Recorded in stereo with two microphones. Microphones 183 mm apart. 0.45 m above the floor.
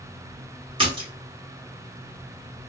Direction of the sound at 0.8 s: 30° right (ahead or behind).